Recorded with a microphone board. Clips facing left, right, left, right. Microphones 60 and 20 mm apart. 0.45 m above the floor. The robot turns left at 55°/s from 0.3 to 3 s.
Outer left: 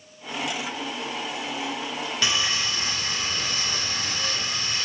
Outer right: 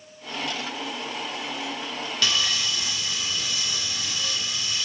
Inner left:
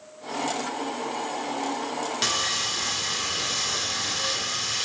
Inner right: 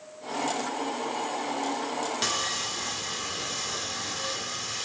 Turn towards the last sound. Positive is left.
turn(degrees=105)